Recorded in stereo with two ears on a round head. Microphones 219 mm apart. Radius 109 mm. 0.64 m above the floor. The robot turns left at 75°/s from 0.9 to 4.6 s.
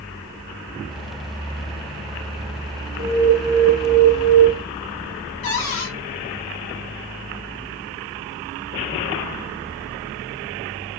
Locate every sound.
3.0 s an alarm: 30° left, 2 m; by 4.4 s 80° right, 2 m
5.4 s a cupboard door: 60° left (ahead or behind), 1.5 m